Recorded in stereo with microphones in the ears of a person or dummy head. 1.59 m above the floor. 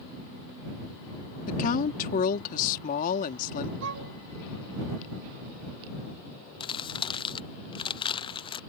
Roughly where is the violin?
Right.